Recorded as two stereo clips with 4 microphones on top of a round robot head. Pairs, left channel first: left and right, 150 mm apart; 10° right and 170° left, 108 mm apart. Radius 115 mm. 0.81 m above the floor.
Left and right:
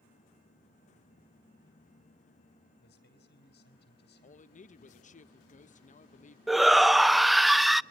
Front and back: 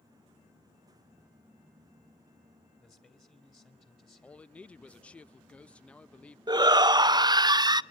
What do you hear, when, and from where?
2.8 s a man speaking: 70° left, 2.5 m
4.2 s a man speaking: 70° left, 0.6 m
6.5 s a shout: straight behind, 0.6 m